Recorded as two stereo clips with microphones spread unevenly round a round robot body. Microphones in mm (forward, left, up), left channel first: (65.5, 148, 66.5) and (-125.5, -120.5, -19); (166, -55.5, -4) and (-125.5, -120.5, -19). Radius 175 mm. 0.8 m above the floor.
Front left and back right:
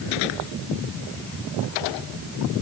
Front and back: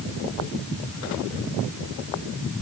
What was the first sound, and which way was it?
Only background noise.